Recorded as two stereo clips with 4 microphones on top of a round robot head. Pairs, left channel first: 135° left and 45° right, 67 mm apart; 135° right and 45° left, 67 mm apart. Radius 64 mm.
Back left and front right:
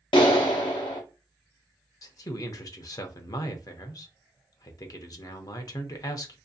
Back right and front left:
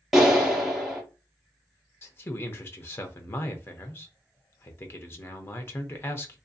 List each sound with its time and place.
0.1 s a clap: 135° left, 0.6 m
2.0 s a man speaking: 170° left, 0.5 m